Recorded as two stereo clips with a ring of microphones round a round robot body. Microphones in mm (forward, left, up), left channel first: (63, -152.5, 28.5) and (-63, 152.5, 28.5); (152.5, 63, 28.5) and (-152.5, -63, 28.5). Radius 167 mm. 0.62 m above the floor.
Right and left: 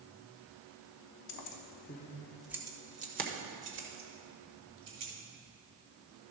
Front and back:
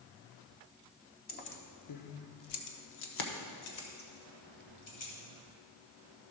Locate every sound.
1.3 s keys jangling: 40° right, 0.8 m; by 5.1 s 65° left, 2.5 m